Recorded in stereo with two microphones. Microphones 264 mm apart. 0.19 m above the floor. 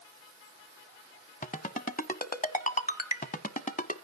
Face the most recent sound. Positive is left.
turn(degrees=30)  # may be behind; listen again after turning